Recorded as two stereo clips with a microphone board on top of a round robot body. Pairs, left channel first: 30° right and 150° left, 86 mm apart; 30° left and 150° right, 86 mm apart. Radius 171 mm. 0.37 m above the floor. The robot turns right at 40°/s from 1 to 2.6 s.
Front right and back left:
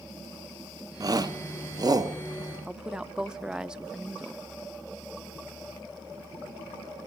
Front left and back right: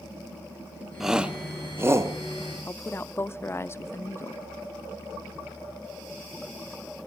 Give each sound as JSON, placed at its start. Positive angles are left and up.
{"t": 1.0, "sound": "a shout", "azimuth_deg": 125, "distance_m": 1.3}
{"t": 2.7, "sound": "a woman speaking", "azimuth_deg": 75, "distance_m": 1.0}